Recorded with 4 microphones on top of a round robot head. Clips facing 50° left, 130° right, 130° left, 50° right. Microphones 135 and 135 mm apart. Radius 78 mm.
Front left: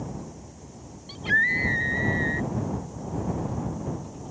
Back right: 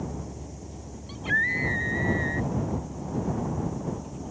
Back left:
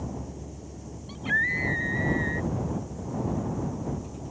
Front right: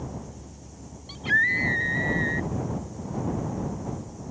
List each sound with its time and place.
0.0 s a vehicle: 170° left; by 4.3 s 145° left
1.1 s a scream: straight ahead